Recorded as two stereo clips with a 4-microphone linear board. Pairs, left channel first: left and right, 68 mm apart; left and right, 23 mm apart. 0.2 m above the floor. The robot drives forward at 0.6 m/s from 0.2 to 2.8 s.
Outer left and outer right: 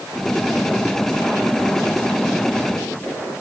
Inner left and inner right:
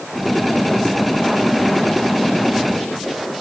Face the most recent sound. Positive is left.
No sound to turn to.